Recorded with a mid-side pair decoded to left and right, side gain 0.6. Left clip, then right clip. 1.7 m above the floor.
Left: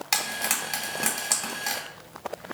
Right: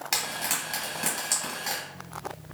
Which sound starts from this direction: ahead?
Frying, at 0.1 s.